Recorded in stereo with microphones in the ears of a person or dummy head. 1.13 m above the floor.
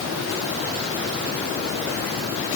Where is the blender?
No blender in this recording.